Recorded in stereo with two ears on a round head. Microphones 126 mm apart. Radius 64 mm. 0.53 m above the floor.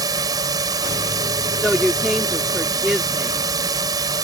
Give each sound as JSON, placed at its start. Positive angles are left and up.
{"t": 0.0, "sound": "a drone", "side_deg": -25}
{"t": 1.6, "sound": "a woman speaking", "side_deg": -5}